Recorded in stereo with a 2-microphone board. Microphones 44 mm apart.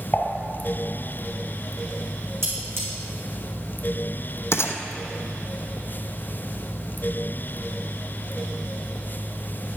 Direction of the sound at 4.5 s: 80° left.